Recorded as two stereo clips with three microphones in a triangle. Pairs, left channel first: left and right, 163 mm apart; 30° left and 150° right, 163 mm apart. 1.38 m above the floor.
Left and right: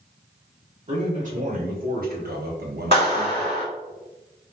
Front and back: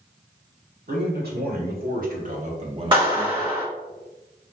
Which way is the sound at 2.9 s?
150° left.